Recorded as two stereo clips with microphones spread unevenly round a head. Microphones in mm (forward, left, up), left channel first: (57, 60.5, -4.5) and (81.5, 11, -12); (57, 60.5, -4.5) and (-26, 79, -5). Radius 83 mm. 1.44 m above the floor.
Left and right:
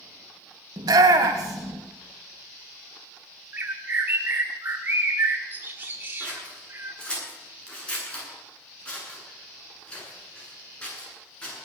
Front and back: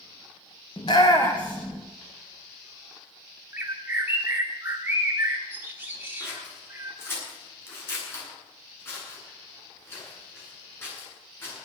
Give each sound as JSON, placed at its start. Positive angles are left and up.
{"t": 0.8, "sound": "a shout", "azimuth_deg": -75, "distance_m": 1.8}
{"t": 3.5, "sound": "a bird", "azimuth_deg": -125, "distance_m": 1.3}
{"t": 6.2, "sound": "scissors", "azimuth_deg": 45, "distance_m": 9.5}